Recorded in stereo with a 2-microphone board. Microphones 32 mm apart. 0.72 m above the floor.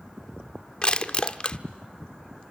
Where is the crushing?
30° left (ahead or behind), 1.0 m.